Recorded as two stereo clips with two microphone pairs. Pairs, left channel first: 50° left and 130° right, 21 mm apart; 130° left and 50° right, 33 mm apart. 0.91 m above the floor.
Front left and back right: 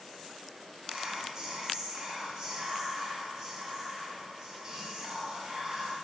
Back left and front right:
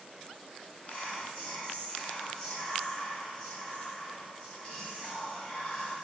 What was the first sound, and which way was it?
Whispering, 175° right.